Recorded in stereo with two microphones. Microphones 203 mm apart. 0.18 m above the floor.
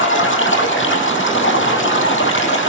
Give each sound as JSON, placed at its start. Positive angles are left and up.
{"t": 0.0, "sound": "running water", "side_deg": 80, "distance_m": 3.5}